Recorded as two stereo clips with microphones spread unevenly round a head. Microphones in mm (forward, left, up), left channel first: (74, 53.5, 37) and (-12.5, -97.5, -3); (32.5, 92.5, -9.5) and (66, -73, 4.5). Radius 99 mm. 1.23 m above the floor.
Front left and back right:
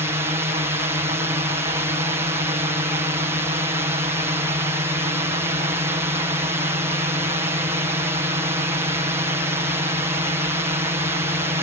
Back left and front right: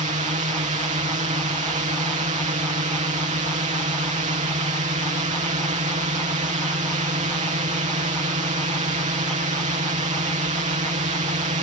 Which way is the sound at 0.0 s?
75° right.